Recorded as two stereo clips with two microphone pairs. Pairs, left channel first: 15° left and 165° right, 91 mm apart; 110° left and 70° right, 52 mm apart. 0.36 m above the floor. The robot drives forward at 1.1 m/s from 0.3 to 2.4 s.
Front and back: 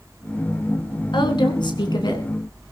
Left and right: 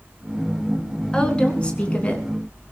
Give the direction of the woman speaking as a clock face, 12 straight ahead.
11 o'clock.